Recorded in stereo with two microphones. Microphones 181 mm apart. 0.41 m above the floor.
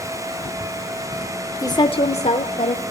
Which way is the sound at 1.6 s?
20° left (ahead or behind).